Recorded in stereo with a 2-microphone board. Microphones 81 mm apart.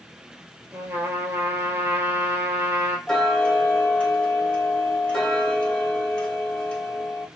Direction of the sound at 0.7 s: 25° right (ahead or behind).